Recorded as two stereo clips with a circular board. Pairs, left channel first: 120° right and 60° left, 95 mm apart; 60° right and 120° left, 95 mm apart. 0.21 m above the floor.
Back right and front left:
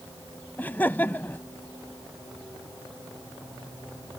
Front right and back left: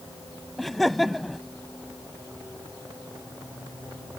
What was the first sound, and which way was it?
Laughter, 145° right.